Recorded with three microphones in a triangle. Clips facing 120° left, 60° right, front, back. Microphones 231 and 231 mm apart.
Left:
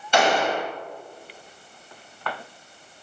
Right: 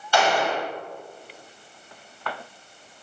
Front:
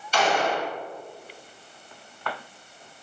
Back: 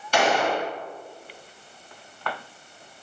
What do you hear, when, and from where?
0.1 s a gunshot: 170° right, 1.9 m